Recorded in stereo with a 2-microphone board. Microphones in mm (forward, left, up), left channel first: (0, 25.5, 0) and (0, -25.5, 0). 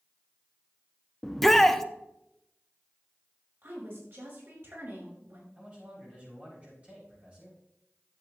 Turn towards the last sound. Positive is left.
turn(degrees=-30)  # may be behind; listen again after turning